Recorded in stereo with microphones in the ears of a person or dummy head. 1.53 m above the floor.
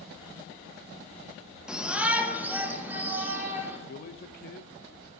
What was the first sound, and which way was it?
A shout, 5° right (ahead or behind).